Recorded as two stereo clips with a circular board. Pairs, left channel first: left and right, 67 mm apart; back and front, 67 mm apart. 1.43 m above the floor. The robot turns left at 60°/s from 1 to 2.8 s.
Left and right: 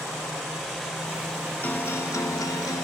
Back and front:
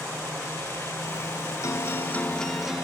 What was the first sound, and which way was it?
A guitar, 150° left.